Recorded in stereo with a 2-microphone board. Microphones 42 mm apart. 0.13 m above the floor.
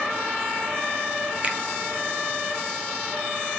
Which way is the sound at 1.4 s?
30° right (ahead or behind).